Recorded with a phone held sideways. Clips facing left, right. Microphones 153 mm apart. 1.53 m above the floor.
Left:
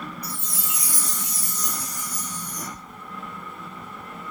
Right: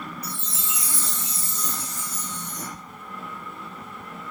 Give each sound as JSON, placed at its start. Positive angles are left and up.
{"t": 0.2, "sound": "a chime", "side_deg": -25, "distance_m": 1.5}